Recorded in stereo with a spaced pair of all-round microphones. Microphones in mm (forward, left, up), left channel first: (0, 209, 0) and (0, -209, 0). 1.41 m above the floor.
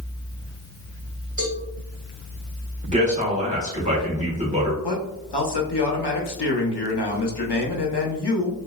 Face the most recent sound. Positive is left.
turn(degrees=80)